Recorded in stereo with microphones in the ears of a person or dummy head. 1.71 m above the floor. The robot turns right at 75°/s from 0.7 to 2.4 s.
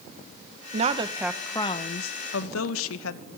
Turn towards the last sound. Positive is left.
turn(degrees=70)